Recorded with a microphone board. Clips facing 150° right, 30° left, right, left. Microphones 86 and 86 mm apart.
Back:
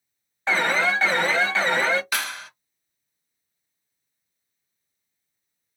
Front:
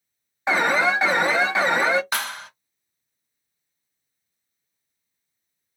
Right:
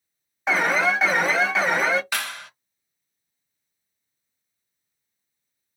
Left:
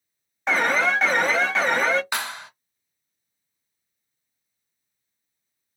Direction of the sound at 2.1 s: 45° left.